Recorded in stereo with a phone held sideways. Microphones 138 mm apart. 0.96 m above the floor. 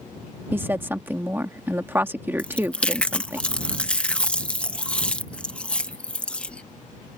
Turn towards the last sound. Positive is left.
turn(degrees=10)  # may be behind; listen again after turning